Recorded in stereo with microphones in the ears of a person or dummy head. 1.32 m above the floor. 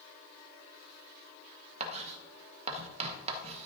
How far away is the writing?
About 1.2 m.